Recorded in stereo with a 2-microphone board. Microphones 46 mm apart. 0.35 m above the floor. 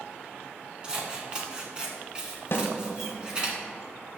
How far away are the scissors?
About 1.5 m.